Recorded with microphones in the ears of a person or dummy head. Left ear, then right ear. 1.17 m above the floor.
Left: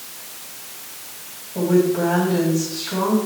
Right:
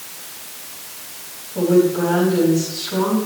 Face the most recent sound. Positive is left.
turn(degrees=25)  # may be behind; listen again after turning